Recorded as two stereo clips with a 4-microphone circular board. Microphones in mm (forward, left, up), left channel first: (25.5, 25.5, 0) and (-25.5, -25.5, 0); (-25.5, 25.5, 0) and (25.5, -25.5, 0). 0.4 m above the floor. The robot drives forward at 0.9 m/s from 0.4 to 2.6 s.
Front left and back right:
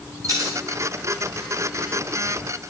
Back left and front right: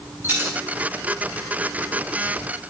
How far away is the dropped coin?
About 7.5 m.